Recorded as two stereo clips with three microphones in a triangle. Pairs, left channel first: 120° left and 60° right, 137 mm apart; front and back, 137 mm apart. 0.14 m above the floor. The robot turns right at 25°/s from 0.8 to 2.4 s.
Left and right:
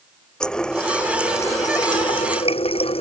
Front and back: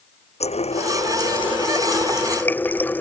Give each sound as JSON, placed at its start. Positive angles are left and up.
{"t": 0.4, "sound": "a running tap", "azimuth_deg": 35}